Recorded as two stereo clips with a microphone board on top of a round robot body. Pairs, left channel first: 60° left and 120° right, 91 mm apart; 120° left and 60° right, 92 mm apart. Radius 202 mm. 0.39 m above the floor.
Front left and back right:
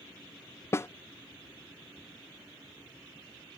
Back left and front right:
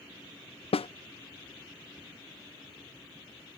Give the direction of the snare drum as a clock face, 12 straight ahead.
8 o'clock.